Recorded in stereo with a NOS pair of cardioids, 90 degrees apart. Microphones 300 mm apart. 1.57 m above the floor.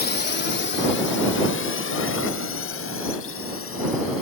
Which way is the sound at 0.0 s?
30° left.